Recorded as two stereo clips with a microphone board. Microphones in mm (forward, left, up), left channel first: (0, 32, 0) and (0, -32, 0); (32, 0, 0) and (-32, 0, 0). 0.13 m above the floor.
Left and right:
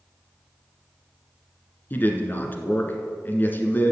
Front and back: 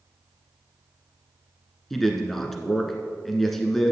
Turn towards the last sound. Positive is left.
turn(degrees=80)